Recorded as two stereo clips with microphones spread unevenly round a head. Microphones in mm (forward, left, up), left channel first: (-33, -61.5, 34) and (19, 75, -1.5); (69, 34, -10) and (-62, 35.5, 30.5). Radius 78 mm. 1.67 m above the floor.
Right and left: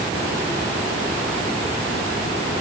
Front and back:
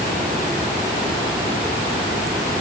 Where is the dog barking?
No dog barking in this recording.